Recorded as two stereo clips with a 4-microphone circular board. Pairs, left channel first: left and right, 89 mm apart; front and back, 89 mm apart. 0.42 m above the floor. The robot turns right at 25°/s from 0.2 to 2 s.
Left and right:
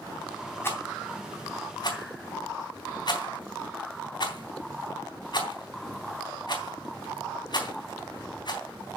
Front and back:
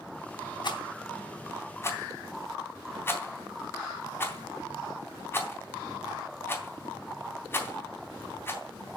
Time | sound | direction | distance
0.6 | a rattle | 30° left | 3 m